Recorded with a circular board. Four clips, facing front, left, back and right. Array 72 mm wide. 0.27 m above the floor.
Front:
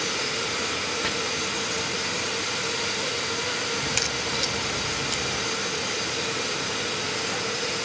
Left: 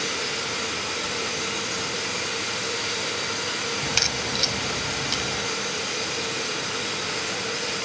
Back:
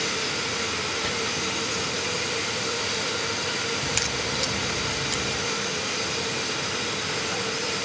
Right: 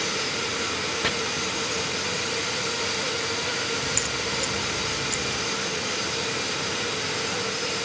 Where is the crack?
85° left.